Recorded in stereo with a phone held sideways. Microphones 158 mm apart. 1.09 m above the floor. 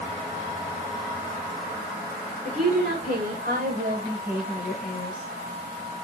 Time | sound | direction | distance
2.5 | a woman speaking | 70° right (ahead or behind) | 3.5 m